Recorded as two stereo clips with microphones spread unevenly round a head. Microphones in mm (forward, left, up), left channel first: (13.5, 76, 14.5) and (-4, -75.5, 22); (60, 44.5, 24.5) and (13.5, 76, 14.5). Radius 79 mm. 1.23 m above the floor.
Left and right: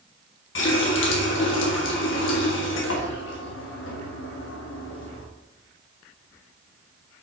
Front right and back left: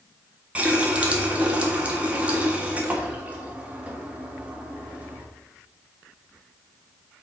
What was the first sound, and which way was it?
A running tap, 75° left.